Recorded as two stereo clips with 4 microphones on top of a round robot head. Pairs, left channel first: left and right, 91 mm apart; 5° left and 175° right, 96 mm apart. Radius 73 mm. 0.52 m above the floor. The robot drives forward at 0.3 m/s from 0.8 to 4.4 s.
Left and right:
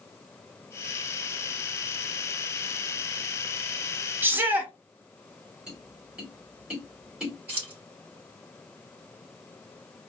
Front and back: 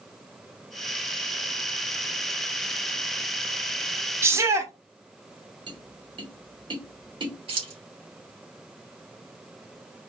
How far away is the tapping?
About 2 m.